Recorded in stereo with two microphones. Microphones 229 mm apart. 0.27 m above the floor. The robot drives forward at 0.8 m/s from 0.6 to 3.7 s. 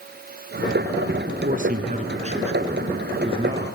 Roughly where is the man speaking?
Right.